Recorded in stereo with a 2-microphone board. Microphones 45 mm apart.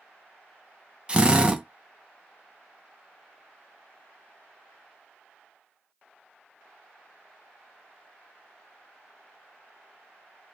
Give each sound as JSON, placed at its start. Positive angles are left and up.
{"t": 1.1, "sound": "a drill", "side_deg": -20, "distance_m": 0.7}